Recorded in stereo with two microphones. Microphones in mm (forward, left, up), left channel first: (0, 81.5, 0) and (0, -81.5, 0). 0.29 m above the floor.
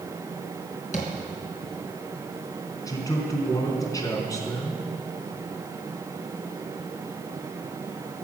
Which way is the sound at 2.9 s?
20° left (ahead or behind).